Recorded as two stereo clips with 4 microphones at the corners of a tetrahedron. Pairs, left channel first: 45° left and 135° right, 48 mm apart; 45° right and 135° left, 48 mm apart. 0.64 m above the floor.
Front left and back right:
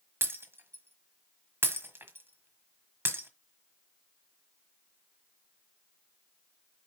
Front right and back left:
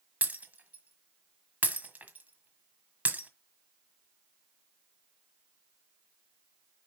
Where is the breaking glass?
170° right, 1.4 m.